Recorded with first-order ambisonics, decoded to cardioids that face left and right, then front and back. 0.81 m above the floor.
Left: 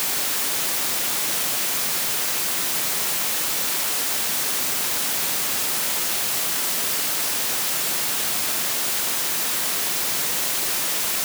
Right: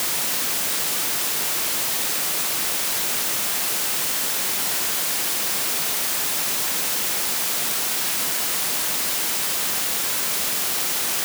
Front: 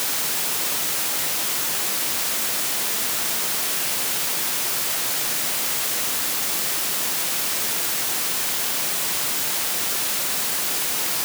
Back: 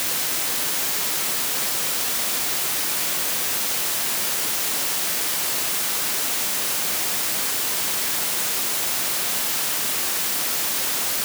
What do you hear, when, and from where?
Only background noise.